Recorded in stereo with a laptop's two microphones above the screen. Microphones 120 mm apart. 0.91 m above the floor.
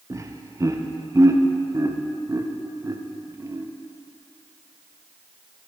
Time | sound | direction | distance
0.1 | laughter | 30° right (ahead or behind) | 0.6 m